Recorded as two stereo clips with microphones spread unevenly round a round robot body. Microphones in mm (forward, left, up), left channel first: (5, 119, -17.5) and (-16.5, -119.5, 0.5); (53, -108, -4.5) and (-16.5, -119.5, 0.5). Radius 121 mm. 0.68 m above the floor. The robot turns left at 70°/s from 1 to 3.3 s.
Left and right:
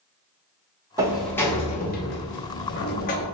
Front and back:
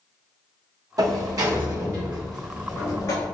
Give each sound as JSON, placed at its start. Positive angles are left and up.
{"t": 1.0, "sound": "a sliding door", "azimuth_deg": -170, "distance_m": 0.6}